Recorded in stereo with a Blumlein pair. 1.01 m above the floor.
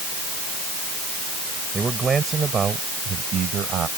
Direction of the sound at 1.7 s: 15° right.